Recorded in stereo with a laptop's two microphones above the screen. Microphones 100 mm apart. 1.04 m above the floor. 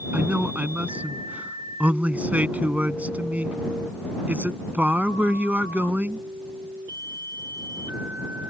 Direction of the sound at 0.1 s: 15° right (ahead or behind).